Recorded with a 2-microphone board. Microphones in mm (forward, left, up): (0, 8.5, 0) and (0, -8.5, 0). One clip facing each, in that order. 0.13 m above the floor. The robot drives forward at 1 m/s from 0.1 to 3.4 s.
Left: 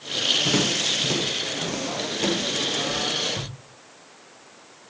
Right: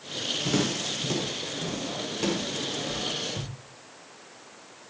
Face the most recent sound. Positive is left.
turn(degrees=-5)  # may be behind; listen again after turning